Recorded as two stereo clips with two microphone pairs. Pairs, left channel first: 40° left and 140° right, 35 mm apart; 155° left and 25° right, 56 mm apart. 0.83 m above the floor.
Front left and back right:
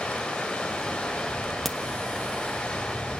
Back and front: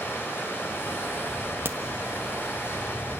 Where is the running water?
110° left, 4 m.